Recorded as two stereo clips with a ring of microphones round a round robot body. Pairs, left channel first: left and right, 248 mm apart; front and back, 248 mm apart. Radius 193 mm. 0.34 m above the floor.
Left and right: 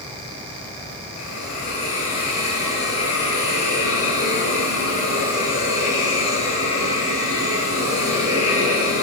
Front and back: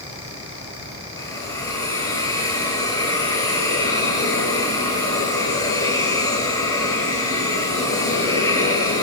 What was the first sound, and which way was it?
A hiss, 75° left.